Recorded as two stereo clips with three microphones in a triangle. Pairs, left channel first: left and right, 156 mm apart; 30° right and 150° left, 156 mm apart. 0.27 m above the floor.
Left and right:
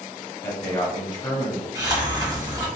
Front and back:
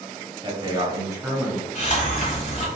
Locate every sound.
0.4 s a man speaking: 145° left, 1.2 m; by 1.6 s 75° left, 1.3 m
1.8 s a hiss: 30° right, 1.5 m